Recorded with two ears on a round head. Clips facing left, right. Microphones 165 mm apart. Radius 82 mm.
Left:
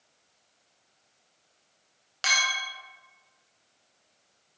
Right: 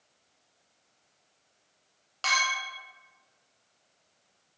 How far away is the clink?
About 0.8 m.